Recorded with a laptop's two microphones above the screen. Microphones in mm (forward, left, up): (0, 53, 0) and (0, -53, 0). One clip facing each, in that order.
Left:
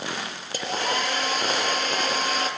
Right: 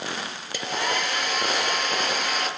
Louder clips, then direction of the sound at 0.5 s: Left 1 dB; 45° left (ahead or behind).